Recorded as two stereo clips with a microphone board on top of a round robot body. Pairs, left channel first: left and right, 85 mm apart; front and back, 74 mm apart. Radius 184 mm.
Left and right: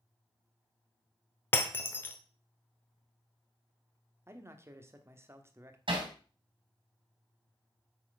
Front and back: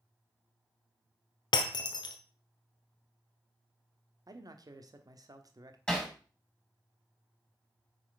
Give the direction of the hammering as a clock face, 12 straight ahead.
3 o'clock.